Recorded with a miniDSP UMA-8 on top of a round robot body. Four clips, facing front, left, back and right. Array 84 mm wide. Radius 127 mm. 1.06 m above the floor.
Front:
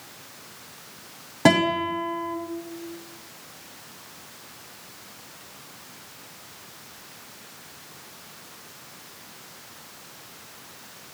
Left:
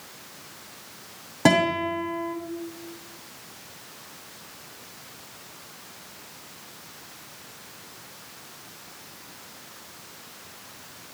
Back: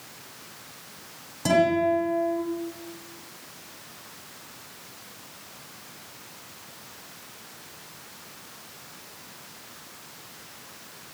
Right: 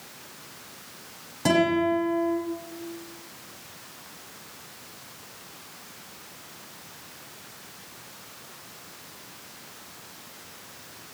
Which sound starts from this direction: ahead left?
A guitar, at 1.4 s.